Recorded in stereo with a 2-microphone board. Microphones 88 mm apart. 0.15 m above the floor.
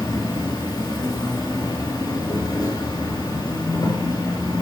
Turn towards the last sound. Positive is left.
turn(degrees=45)  # may be behind; listen again after turning